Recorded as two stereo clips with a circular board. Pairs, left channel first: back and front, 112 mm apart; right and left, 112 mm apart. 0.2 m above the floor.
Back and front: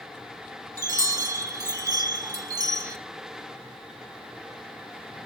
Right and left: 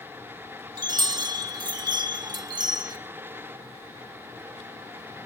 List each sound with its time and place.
0.8 s a chime: 50° left, 0.5 m